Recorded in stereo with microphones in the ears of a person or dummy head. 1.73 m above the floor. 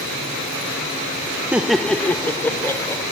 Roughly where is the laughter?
Centre.